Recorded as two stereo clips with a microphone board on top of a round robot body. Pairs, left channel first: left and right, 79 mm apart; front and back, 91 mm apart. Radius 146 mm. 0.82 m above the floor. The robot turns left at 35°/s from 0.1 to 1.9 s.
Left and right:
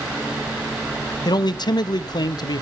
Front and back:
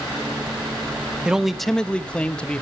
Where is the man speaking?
100° left, 1.1 m; by 2.6 s 80° left, 1.1 m.